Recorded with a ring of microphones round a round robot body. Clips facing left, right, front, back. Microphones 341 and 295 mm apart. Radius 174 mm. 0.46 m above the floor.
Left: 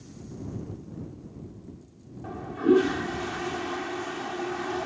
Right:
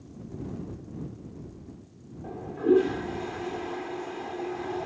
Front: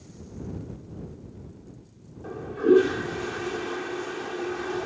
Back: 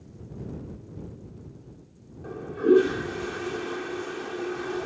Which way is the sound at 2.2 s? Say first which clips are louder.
Left 1 dB, even; 90° left.